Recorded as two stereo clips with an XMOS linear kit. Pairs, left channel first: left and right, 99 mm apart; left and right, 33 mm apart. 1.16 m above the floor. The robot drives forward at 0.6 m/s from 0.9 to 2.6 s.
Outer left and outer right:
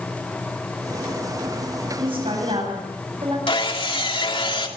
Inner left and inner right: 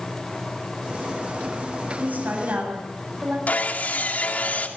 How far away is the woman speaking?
About 9 m.